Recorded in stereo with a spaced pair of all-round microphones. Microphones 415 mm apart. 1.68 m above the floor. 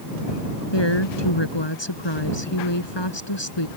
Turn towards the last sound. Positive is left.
turn(degrees=80)